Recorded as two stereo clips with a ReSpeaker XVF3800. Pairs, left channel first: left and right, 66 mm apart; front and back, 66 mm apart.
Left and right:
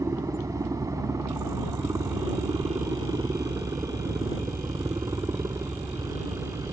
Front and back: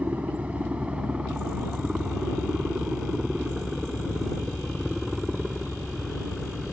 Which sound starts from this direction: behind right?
A helicopter, at 0.0 s.